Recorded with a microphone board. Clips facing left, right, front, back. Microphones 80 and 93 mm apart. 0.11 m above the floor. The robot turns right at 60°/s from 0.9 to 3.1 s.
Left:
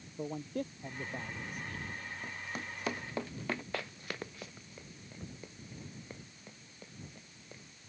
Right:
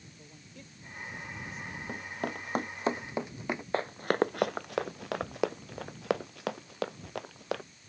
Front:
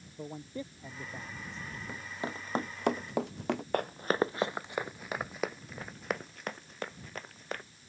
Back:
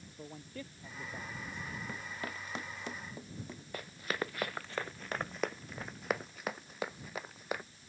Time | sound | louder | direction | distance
0.2 | a man speaking | left 19 dB, front 6 dB | 65° left | ?
1.9 | running footsteps | right 7 dB, front 3 dB | 85° right | ?
3.7 | running footsteps | right 12 dB, front 8 dB | 30° right | ?